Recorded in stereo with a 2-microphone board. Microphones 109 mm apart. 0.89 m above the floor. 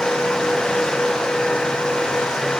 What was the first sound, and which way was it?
Only background noise.